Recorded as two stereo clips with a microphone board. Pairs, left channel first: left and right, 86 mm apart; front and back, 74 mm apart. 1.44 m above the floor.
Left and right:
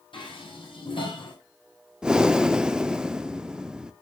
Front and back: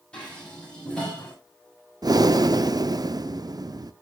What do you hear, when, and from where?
0.1 s dishes clattering: 75° left, 6.5 m
2.0 s breathing: 170° right, 0.6 m